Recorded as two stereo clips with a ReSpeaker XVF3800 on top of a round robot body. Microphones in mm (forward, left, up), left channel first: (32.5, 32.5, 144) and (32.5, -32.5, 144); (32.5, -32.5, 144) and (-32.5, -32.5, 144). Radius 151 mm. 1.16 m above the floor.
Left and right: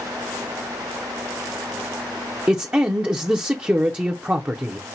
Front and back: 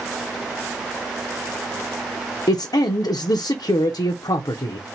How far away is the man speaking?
About 0.5 m.